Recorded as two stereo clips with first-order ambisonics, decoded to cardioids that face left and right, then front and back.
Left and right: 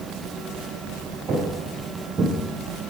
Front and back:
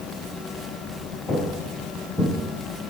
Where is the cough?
I don't hear a cough.